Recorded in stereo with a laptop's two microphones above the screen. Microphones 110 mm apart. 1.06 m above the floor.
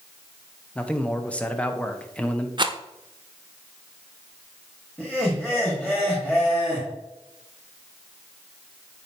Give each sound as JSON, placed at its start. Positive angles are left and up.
{"t": 0.8, "sound": "a man speaking", "side_deg": 10, "distance_m": 0.9}
{"t": 2.6, "sound": "a rattle", "side_deg": -45, "distance_m": 0.5}
{"t": 5.0, "sound": "laughter", "side_deg": 15, "distance_m": 1.7}